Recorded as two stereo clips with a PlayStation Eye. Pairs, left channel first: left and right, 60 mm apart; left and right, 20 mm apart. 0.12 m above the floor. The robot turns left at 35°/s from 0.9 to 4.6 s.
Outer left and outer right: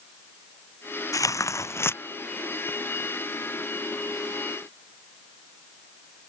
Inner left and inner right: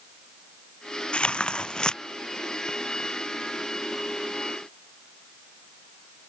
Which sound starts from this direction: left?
Tearing paper, at 1.1 s.